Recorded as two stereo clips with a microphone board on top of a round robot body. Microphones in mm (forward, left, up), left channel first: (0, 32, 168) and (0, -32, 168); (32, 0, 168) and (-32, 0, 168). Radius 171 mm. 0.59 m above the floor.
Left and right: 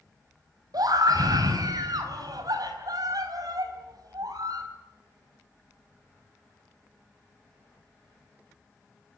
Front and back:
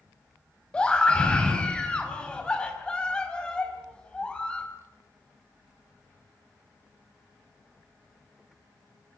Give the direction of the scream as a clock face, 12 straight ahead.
3 o'clock.